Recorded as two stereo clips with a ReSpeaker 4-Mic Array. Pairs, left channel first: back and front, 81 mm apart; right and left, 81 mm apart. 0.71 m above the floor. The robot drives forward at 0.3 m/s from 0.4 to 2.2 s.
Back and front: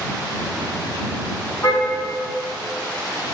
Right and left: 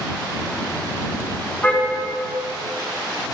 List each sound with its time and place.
1.6 s a car horn: 160° right, 3.5 m